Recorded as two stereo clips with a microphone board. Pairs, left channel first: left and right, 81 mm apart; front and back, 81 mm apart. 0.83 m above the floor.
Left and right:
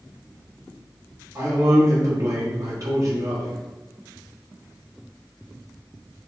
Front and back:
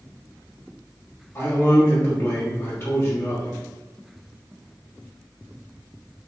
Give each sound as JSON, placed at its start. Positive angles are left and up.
{"t": 1.4, "sound": "a man speaking", "azimuth_deg": -55, "distance_m": 1.2}